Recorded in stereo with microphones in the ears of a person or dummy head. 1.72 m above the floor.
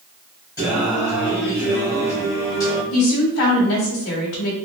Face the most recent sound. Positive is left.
turn(degrees=60)  # may be behind; listen again after turning